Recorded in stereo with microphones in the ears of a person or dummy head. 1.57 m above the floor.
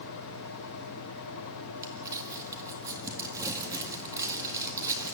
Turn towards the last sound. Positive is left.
turn(degrees=-20)  # may be behind; listen again after turning